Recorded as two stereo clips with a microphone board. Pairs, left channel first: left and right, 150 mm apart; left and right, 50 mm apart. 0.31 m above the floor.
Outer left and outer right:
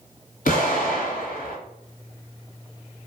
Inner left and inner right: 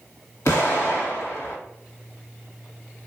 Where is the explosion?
75° left (ahead or behind), 1.4 m.